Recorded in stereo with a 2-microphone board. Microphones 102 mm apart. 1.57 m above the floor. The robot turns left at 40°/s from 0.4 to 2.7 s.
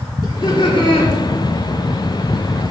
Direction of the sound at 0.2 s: 50° left (ahead or behind).